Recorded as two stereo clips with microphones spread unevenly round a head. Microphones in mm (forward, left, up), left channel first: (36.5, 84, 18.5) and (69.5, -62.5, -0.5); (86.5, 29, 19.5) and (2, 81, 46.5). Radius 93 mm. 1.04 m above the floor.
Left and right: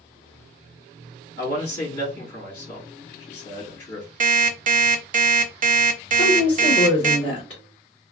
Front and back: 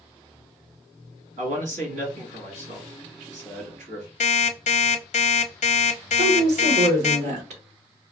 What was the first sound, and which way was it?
A man speaking, 155° left.